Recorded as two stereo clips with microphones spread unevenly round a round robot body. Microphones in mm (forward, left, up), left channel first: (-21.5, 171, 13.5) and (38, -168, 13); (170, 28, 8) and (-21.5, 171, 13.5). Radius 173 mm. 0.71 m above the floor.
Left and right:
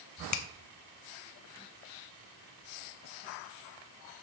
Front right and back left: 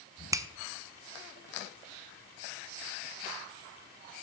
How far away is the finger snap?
About 0.8 m.